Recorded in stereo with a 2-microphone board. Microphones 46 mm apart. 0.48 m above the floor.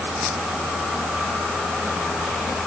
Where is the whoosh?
I don't hear a whoosh.